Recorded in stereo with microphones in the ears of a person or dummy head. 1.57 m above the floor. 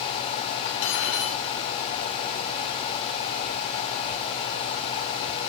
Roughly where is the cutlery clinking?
Left.